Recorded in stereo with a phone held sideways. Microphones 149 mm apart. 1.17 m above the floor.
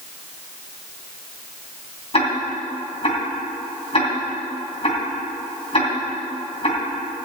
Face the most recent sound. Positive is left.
turn(degrees=40)  # may be behind; listen again after turning